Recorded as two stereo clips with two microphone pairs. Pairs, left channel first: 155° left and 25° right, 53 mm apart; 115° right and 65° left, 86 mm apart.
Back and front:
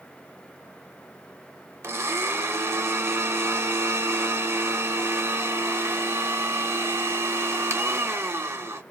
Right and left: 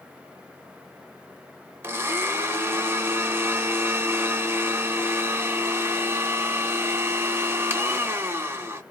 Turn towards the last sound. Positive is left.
turn(degrees=5)